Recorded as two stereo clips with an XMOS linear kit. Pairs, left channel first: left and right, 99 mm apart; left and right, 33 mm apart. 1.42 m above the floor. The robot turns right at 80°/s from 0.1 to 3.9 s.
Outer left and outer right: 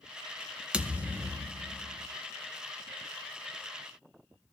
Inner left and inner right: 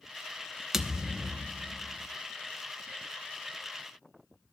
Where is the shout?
I don't hear a shout.